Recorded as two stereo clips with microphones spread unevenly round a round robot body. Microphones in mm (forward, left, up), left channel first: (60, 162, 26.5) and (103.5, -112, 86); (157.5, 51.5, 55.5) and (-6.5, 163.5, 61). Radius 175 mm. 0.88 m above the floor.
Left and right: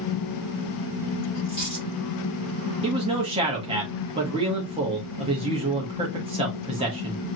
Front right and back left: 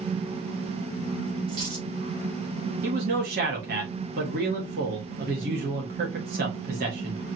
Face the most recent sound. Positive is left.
turn(degrees=-160)